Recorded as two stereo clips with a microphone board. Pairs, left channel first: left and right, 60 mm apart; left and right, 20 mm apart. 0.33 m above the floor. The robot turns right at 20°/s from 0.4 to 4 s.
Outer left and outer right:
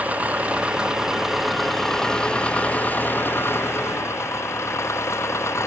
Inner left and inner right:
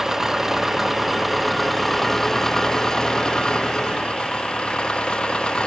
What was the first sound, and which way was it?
An engine running, 25° right.